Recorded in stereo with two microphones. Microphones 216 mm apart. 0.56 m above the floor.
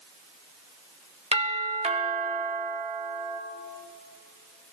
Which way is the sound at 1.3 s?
30° right (ahead or behind).